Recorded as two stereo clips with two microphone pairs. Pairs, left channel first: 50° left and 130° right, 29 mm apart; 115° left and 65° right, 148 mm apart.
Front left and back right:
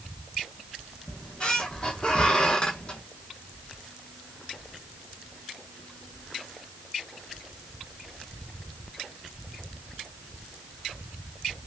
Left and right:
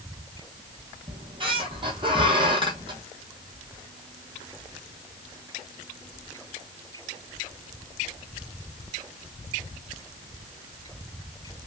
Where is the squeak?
10° right, 1.3 m.